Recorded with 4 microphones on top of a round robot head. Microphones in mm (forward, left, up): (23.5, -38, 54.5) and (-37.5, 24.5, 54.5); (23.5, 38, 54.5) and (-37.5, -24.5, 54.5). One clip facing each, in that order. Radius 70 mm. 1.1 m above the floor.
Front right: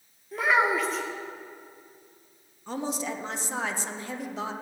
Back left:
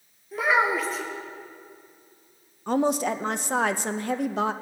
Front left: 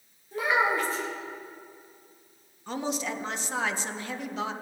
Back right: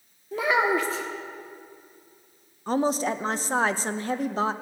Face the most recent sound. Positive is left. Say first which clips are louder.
# back left 9 dB, back right 7 dB
turn(degrees=170)